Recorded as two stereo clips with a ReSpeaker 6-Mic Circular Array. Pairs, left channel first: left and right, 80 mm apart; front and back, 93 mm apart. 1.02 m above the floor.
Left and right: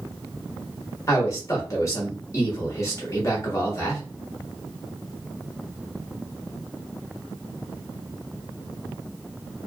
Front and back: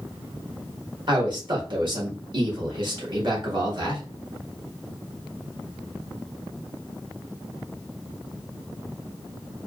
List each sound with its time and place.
1.1 s a man speaking: 140° left, 1.4 m